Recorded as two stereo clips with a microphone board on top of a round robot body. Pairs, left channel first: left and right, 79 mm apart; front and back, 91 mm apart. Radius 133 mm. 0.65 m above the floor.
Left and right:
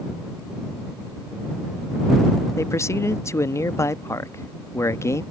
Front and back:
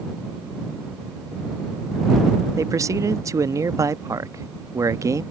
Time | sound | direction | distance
2.6 | a man speaking | 135° left | ?